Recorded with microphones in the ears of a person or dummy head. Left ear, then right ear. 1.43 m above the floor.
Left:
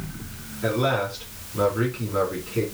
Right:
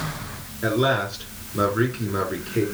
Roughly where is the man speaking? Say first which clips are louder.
Right 2 dB; centre.